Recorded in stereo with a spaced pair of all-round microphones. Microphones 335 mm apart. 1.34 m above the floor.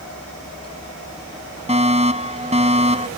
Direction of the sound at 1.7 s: 20° right (ahead or behind).